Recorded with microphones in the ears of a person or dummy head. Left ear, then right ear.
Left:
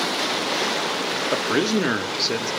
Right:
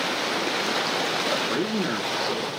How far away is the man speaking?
About 0.7 m.